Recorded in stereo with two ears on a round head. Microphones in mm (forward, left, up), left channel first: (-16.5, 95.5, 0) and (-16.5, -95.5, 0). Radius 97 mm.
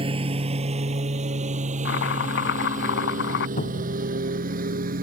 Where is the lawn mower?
25° right (ahead or behind); by 5.0 s 45° right (ahead or behind).